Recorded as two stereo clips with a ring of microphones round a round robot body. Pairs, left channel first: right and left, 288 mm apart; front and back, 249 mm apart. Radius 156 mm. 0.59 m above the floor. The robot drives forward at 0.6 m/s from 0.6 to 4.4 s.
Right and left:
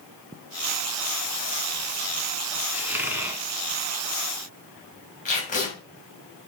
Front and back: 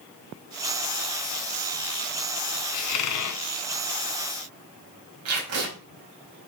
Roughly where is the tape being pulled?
Behind right.